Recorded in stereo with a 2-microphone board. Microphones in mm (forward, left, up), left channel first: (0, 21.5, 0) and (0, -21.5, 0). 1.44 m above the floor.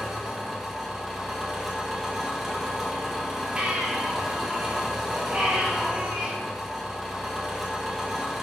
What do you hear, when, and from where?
0.0 s an engine running: 5° right (ahead or behind), 1.4 m
3.6 s a baby crying: 25° right (ahead or behind), 1.6 m